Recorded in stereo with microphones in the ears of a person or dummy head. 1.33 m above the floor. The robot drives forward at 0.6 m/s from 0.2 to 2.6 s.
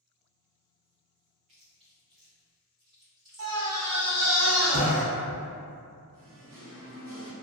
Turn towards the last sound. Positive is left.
turn(degrees=-55)  # may be behind; listen again after turning